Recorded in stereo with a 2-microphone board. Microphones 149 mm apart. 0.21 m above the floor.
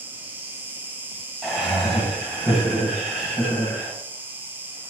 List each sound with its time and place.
0.0 s an insect: 15° right (ahead or behind), 0.8 m
1.4 s laughter: centre (ahead or behind), 1.4 m